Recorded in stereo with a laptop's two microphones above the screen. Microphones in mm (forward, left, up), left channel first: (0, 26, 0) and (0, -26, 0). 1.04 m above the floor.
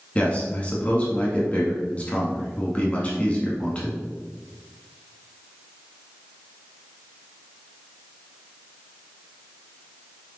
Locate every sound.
0.1 s a man speaking: 25° left (ahead or behind), 2.0 m